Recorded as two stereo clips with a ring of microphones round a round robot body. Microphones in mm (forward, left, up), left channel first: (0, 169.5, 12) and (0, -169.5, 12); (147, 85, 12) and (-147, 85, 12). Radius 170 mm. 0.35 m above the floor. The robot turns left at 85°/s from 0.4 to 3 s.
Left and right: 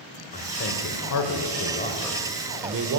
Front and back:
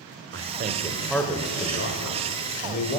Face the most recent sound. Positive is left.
turn(degrees=-70)